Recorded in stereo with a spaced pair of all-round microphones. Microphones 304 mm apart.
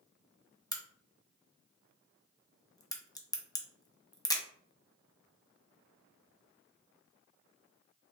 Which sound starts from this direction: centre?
A crack, at 0.7 s.